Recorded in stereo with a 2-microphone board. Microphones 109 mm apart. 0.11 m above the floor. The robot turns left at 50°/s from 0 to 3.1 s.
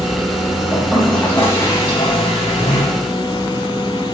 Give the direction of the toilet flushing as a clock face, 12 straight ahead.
5 o'clock.